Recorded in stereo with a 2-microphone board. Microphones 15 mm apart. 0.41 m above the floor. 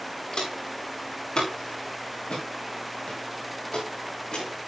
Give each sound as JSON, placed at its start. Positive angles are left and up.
{"t": 0.3, "sound": "footsteps", "side_deg": 45, "distance_m": 7.0}